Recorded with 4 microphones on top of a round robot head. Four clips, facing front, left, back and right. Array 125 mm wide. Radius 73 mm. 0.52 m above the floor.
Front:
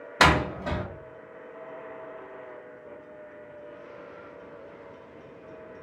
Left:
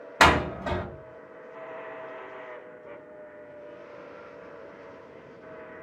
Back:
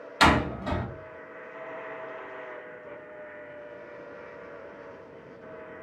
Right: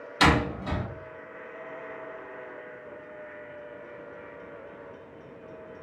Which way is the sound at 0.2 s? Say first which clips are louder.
Left 2 dB, even; 50° left.